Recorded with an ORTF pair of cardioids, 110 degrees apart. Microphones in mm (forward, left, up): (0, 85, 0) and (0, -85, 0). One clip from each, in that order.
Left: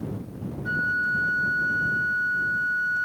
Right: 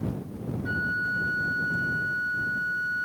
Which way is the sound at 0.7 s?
15° left.